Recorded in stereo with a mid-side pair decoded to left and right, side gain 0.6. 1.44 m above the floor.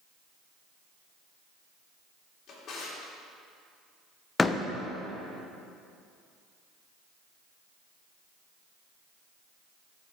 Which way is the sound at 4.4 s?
20° left.